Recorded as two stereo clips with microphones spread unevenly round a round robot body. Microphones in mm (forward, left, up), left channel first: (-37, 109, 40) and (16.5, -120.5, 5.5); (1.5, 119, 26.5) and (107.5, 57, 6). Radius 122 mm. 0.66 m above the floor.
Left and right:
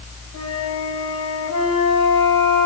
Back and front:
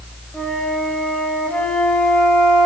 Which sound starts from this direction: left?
A flute, at 0.3 s.